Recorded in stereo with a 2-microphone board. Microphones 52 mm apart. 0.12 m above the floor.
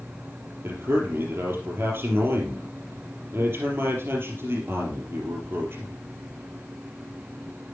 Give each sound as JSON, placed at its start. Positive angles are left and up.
{"t": 0.6, "sound": "a man speaking", "side_deg": -45, "distance_m": 3.5}